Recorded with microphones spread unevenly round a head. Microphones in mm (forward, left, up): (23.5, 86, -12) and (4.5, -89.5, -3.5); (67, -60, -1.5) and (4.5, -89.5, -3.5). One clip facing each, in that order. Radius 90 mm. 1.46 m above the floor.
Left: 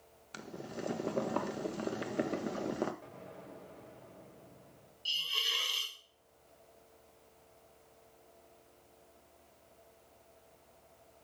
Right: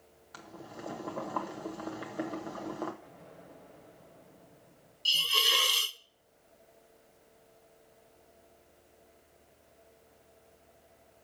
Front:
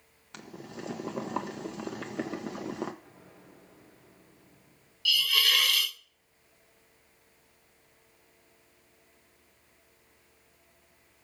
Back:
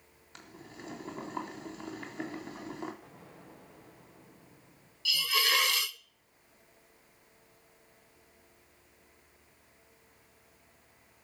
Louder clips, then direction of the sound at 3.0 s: Left 2 dB, back 2 dB; 130° left.